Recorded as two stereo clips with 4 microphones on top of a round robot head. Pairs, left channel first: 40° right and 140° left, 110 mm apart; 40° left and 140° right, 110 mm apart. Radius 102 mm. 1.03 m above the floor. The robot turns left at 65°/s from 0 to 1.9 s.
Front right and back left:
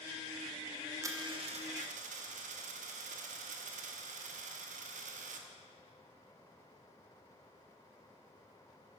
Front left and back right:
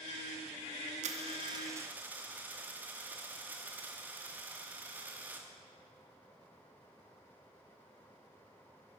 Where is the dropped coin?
160° right, 0.9 m; by 5.5 s 145° left, 0.9 m.